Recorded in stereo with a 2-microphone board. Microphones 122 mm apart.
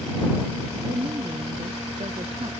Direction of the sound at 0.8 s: 55° right (ahead or behind).